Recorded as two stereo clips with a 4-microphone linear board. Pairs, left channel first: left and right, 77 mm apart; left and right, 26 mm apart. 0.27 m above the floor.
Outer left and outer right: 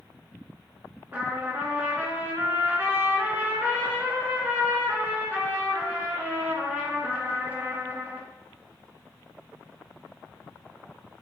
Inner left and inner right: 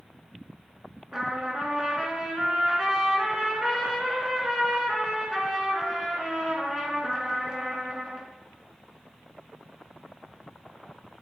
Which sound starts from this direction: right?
A trumpet, at 1.1 s.